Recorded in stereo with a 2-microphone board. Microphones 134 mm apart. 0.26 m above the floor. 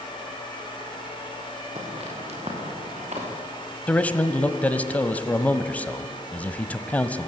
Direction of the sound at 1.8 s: 50° right (ahead or behind).